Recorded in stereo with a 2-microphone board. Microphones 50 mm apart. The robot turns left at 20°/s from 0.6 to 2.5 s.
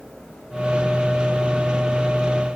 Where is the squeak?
No squeak in this recording.